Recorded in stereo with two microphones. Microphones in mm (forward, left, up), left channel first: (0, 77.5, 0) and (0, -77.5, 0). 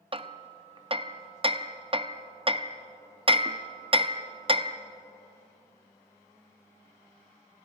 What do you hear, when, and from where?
0.1 s hammering: 35° right (ahead or behind), 0.5 m